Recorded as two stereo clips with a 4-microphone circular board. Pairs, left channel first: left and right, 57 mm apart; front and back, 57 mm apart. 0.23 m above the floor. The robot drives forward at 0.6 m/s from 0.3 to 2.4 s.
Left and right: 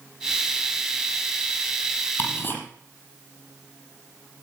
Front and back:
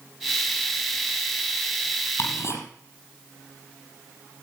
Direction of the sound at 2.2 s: 35° left.